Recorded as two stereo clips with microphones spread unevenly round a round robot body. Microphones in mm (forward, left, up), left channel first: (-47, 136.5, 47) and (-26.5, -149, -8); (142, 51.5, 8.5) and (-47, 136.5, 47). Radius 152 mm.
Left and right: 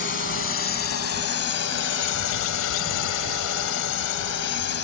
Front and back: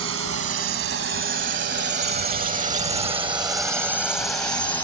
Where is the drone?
150° left; by 4.8 s 45° left.